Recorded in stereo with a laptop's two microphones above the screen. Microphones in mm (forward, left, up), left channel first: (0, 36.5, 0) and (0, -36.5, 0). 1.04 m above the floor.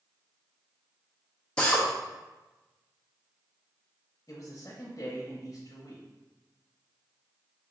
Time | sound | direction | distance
1.6 | a drill | 15° left (ahead or behind) | 0.5 m
4.3 | a man speaking | 45° left (ahead or behind) | 0.8 m